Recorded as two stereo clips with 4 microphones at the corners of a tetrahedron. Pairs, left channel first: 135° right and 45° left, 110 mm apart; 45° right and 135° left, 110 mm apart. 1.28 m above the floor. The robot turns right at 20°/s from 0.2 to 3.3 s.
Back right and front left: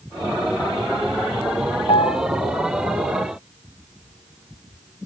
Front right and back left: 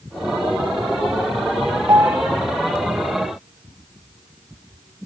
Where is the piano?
165° right; by 2.2 s 160° right.